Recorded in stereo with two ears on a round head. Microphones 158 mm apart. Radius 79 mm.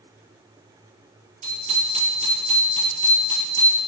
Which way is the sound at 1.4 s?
40° right (ahead or behind).